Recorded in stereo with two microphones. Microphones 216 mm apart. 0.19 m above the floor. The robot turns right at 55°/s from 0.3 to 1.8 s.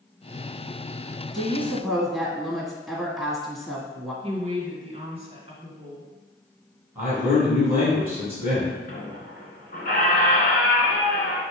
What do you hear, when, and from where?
1.3 s a woman speaking: 20° left (ahead or behind), 1.3 m; by 4.1 s centre (ahead or behind), 1.3 m
4.2 s a woman speaking: 25° right (ahead or behind), 1.7 m
7.0 s a man speaking: 10° right (ahead or behind), 1.9 m
8.9 s a squeak: 45° left (ahead or behind), 1.1 m